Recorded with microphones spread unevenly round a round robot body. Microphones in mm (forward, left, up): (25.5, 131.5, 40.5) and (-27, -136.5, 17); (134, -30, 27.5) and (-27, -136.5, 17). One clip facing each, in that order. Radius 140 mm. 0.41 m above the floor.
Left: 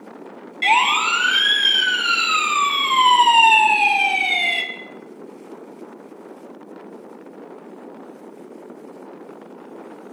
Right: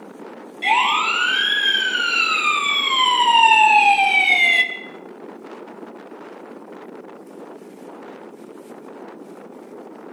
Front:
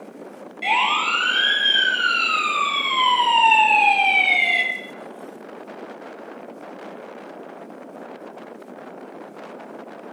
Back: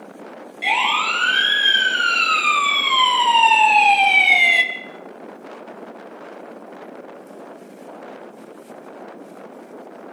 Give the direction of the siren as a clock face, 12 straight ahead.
8 o'clock.